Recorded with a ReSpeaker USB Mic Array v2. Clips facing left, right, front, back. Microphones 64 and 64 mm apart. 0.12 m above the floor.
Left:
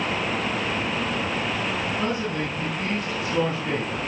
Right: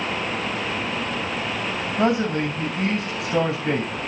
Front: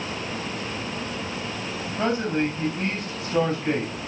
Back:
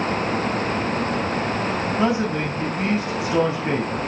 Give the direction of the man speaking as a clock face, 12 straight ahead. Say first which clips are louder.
Right 5 dB, even; 3 o'clock.